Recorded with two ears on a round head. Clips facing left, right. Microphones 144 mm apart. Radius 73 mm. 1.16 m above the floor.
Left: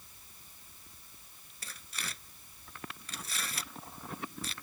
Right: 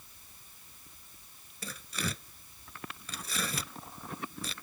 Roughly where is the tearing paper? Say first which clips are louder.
Right 9 dB; right.